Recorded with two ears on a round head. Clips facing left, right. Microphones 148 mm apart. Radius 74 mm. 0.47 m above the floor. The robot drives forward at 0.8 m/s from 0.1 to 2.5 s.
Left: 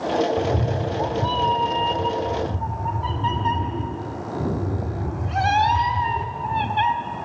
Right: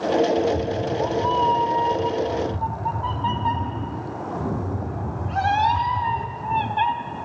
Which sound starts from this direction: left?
A cat meowing, at 0.4 s.